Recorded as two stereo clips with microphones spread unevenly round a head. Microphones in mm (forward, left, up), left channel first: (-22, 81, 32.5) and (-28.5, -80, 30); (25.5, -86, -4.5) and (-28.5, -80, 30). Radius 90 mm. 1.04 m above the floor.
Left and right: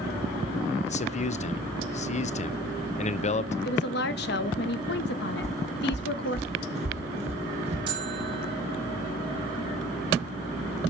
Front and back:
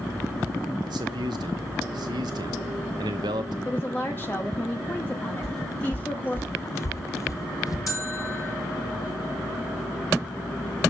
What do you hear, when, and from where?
0.8 s a man speaking: 130° left, 0.6 m
3.6 s a woman speaking: 60° left, 0.9 m
5.4 s footsteps: 150° right, 1.2 m; by 7.8 s 45° right, 1.6 m
7.9 s a bell: 30° right, 2.5 m